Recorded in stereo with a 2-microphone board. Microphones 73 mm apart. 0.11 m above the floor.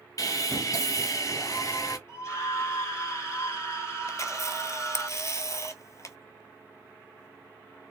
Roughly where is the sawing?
Left.